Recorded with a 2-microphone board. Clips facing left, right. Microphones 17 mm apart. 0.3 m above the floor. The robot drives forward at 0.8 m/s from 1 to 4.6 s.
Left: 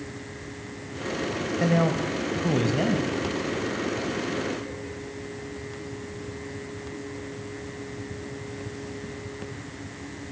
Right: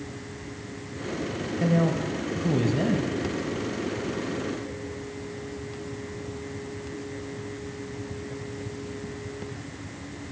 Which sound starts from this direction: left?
A man speaking, at 1.6 s.